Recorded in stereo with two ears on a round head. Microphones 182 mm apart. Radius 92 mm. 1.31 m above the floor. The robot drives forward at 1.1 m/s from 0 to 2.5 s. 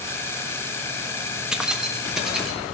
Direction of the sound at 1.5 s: 5° right (ahead or behind).